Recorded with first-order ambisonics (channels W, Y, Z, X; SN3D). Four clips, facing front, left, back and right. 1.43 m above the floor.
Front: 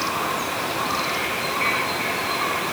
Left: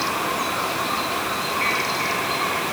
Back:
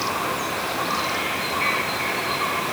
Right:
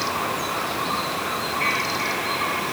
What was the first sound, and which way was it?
Only background noise.